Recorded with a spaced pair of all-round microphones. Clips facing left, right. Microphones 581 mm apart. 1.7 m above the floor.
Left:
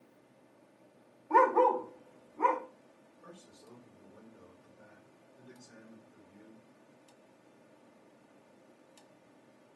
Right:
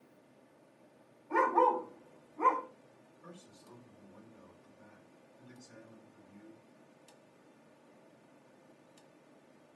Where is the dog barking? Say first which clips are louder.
Left 4 dB; 55° left (ahead or behind), 2.5 m.